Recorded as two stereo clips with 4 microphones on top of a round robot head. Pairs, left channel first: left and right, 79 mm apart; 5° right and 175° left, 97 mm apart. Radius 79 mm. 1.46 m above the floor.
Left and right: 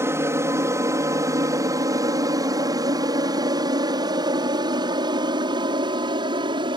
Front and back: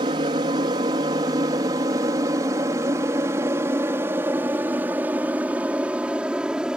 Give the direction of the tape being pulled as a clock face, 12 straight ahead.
No tape being pulled in this recording.